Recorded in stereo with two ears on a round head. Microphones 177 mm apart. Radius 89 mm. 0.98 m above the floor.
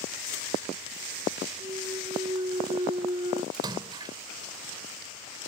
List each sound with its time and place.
1.6 s a clunk: 25° right (ahead or behind)
3.5 s a splash: 20° right (ahead or behind)